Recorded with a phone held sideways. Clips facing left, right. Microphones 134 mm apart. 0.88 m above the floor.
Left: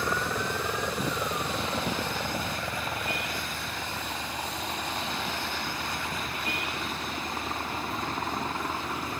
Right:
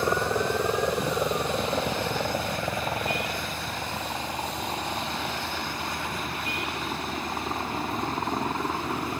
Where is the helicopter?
25° right (ahead or behind); by 9.2 s 20° right (ahead or behind).